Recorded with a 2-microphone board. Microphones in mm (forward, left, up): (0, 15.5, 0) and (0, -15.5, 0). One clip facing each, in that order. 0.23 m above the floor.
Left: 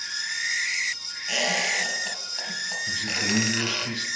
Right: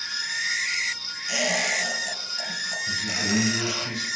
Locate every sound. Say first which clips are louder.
1.3 s a squeak: even; 30° left (ahead or behind), 3 m
2.9 s a man speaking: even; 25° left (ahead or behind), 1.3 m